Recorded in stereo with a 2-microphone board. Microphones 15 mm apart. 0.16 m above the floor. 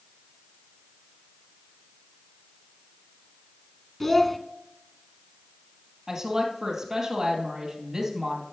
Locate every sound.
4.0 s a child speaking: 10° left (ahead or behind), 0.7 m
6.1 s a woman speaking: 25° right (ahead or behind), 3 m